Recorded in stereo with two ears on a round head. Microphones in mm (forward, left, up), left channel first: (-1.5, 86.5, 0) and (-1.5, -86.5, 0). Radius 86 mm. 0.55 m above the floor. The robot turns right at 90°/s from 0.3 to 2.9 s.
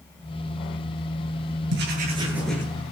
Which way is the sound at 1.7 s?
70° right.